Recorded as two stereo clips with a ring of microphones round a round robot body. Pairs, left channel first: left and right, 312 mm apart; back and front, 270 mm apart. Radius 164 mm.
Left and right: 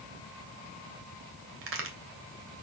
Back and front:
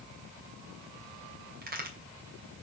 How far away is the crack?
About 2.5 m.